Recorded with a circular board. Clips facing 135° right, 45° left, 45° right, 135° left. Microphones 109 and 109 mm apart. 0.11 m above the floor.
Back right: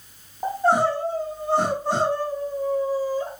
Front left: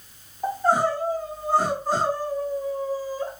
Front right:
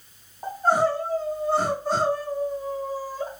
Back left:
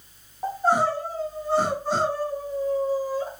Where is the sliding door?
No sliding door in this recording.